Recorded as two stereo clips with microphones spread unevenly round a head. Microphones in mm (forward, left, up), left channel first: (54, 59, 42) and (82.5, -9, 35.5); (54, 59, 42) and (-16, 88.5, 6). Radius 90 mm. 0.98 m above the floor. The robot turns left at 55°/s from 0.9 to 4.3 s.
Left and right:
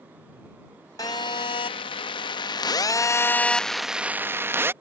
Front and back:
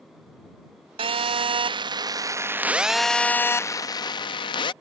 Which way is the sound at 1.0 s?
175° left.